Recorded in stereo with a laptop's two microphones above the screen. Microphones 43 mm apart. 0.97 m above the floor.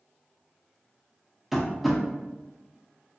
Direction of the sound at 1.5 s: 5° right (ahead or behind).